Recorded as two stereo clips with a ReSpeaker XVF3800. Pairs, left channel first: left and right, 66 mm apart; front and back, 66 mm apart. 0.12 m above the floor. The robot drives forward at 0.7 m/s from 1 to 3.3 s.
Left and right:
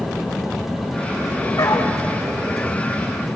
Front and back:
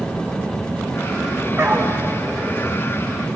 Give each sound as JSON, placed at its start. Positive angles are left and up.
{"t": 1.6, "sound": "a dog barking", "azimuth_deg": 120, "distance_m": 4.5}